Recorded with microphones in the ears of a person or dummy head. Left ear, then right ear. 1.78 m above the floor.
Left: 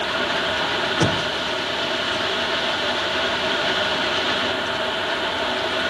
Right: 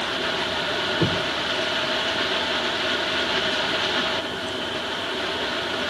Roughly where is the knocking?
Left.